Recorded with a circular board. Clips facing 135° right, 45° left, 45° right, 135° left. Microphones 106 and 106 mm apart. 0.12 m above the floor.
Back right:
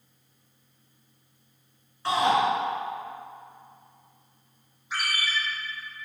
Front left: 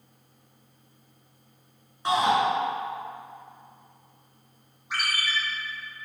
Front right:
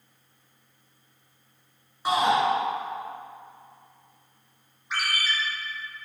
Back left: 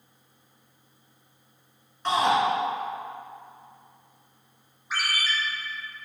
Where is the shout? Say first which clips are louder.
Even, even; 15° left, 1.1 m.